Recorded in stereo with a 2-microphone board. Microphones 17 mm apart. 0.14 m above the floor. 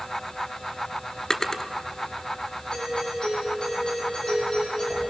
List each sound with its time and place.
1.3 s a drawer: 25° left (ahead or behind), 1.3 m
2.7 s a doorbell: 35° left (ahead or behind), 8 m